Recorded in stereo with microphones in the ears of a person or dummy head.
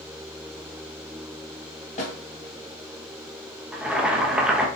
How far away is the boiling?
About 0.7 m.